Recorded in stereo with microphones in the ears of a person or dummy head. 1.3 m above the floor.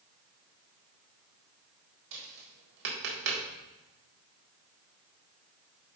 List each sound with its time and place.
2.1 s tapping: 70° right (ahead or behind), 1.6 m